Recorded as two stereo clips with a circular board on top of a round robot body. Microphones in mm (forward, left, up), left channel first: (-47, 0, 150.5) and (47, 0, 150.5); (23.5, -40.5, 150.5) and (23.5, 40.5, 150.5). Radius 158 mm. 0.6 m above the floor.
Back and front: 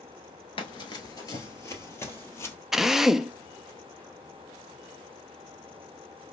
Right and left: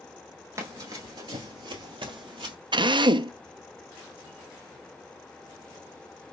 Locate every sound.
0.6 s running footsteps: 145° left, 0.7 m; by 2.5 s 115° left, 1.6 m
2.7 s a drill: 85° left, 0.6 m